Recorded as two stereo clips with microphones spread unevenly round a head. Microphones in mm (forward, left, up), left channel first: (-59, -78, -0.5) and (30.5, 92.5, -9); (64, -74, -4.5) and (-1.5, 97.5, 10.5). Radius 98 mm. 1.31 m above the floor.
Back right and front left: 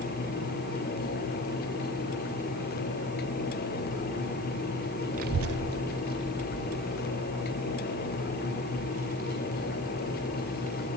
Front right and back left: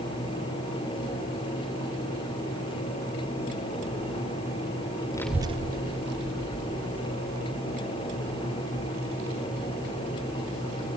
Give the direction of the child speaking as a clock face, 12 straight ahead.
12 o'clock.